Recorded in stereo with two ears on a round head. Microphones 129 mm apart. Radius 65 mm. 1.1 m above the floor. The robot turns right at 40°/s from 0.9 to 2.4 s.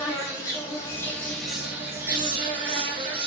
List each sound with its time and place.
0.0 s an insect: 155° left, 1.4 m; by 3.3 s 145° right, 1.4 m